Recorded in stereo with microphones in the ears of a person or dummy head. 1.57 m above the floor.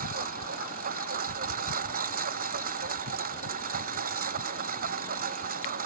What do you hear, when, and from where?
0.0 s a lawn mower: 45° right (ahead or behind)